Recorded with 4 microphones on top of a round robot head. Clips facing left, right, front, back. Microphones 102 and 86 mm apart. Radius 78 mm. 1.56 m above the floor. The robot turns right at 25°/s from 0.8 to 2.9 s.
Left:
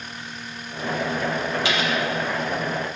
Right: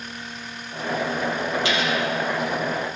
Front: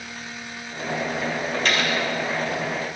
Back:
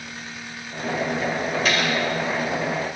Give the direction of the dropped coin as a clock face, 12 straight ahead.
9 o'clock.